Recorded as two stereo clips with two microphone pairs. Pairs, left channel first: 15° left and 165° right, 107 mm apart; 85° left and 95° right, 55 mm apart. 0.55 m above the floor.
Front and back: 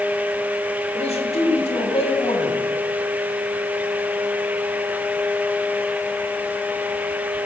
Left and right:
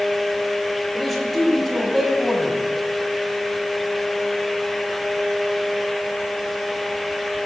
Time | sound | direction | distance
0.9 | a man speaking | straight ahead | 2 m